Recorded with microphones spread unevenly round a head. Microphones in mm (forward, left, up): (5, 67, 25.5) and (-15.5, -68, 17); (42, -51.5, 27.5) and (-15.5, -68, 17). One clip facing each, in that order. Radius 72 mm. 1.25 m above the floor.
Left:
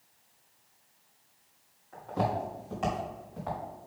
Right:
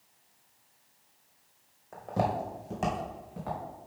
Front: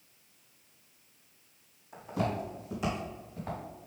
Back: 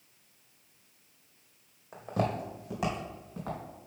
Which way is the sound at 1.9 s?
130° right.